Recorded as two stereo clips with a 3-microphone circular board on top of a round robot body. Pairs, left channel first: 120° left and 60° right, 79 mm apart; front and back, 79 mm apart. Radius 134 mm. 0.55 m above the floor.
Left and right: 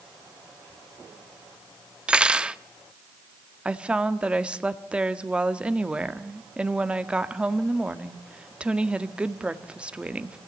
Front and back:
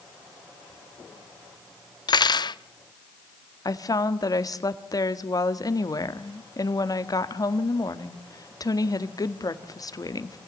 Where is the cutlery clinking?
15° left, 0.7 m.